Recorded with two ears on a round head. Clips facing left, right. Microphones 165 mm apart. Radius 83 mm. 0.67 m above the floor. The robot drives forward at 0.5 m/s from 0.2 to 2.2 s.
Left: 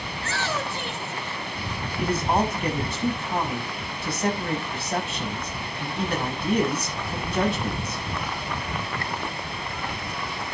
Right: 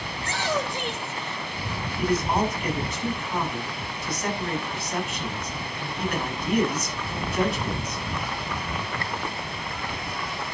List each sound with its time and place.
0.1 s a shout: 15° right (ahead or behind), 3.5 m; by 1.4 s 20° right (ahead or behind), 3 m
2.0 s a man speaking: 25° left (ahead or behind), 6 m